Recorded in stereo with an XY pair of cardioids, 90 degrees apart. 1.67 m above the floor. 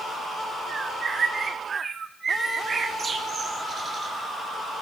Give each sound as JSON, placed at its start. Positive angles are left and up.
{"t": 0.7, "sound": "a bird", "azimuth_deg": -45, "distance_m": 4.0}